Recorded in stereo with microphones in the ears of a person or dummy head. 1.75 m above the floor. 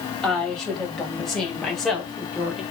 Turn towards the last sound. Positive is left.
turn(degrees=-5)  # may be behind; listen again after turning